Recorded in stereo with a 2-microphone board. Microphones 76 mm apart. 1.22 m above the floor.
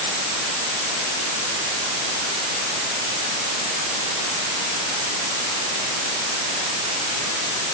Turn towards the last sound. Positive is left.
No sound to turn to.